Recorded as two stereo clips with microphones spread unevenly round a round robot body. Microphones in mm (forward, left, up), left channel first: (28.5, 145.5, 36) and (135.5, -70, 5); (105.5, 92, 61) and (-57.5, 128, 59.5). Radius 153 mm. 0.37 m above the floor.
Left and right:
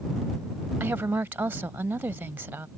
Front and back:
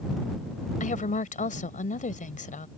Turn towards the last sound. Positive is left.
turn(degrees=15)